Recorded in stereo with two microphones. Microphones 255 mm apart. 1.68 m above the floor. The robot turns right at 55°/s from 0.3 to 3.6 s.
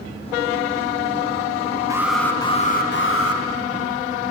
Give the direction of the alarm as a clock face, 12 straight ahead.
12 o'clock.